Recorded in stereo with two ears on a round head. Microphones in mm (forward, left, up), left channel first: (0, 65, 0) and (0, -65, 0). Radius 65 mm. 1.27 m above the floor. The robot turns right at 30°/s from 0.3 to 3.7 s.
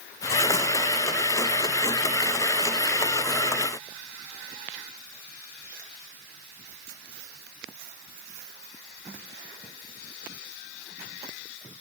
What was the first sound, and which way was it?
Only background noise.